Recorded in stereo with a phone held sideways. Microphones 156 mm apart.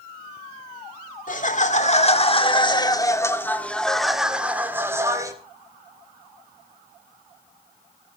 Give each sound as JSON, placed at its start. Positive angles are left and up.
{"t": 1.3, "sound": "laughter", "side_deg": 50, "distance_m": 2.5}